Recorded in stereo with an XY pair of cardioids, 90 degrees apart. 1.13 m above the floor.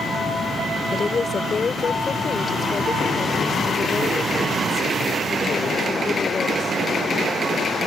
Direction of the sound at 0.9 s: 40° left.